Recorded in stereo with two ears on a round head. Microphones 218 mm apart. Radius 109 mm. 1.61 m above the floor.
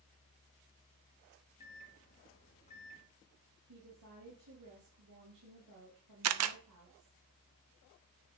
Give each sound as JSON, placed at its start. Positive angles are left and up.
{"t": 1.6, "sound": "a microwave", "side_deg": 30, "distance_m": 2.0}
{"t": 3.7, "sound": "a woman speaking", "side_deg": -85, "distance_m": 3.5}
{"t": 6.2, "sound": "a camera shutter", "side_deg": -70, "distance_m": 0.6}